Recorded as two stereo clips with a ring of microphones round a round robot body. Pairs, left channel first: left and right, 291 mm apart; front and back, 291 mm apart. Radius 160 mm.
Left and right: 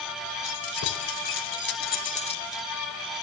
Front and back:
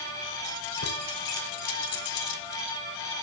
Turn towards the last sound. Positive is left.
turn(degrees=10)